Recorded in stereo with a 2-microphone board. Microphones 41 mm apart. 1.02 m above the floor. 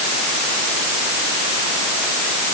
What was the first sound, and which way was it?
Only background noise.